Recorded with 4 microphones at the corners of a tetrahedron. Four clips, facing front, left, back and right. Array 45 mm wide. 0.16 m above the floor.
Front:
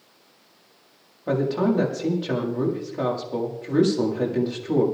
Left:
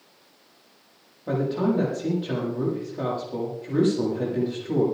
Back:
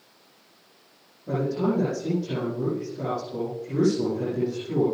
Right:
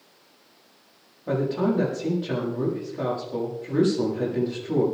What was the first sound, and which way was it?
A man speaking, 5° left.